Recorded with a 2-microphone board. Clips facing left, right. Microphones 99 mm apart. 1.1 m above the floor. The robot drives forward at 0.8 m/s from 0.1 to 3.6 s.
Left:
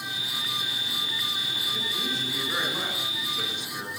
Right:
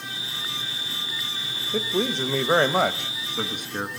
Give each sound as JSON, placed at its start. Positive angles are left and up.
{"t": 1.7, "sound": "a man speaking", "side_deg": -60, "distance_m": 1.3}